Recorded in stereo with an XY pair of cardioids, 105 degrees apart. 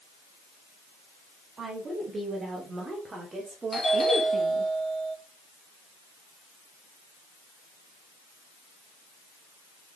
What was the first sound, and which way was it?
A woman speaking, 35° right.